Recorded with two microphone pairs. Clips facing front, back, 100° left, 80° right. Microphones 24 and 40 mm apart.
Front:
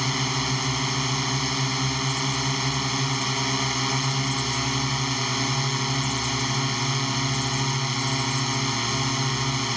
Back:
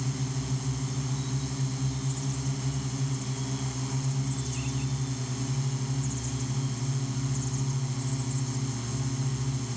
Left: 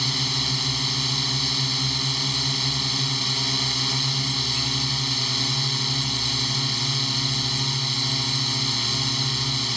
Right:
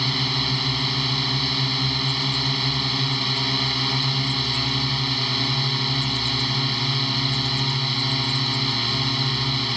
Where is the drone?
5° right.